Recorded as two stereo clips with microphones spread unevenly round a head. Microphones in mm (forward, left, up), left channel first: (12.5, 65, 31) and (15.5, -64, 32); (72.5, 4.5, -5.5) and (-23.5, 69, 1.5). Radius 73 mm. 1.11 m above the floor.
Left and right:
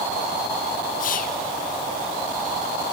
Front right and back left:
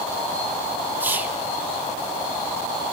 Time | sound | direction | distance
1.0 | whispering | 70° left | 1.4 m